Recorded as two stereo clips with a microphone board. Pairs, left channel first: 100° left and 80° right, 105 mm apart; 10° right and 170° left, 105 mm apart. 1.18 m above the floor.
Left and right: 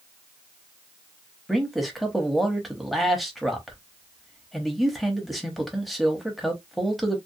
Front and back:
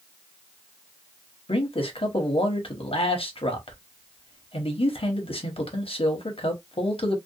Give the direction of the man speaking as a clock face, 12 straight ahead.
12 o'clock.